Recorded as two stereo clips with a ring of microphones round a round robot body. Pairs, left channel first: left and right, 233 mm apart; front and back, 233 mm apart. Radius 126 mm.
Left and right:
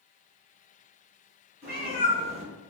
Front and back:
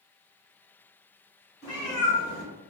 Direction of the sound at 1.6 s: 40° right.